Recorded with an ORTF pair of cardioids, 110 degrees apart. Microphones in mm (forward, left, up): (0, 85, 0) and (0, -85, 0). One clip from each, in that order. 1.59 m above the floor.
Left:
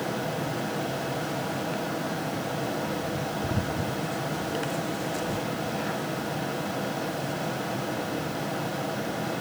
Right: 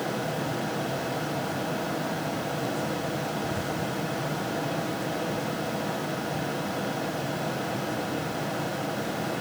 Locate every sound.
0.0 s a fan: 5° right, 1.2 m